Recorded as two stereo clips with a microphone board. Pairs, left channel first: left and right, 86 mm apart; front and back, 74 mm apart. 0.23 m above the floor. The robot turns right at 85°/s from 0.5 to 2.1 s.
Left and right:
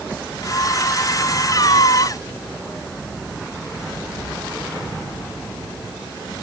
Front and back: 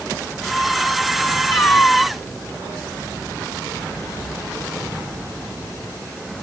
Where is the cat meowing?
45° left; by 2.2 s 95° left.